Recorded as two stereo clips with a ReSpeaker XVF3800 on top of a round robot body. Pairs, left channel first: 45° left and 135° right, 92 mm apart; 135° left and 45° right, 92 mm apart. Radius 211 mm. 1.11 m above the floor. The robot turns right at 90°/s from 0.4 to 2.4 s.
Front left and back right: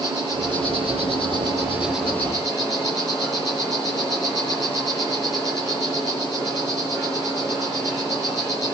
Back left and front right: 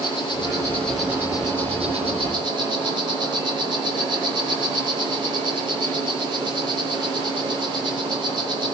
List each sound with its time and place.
0.0 s an insect: 175° left, 9 m; by 8.7 s 5° right, 9 m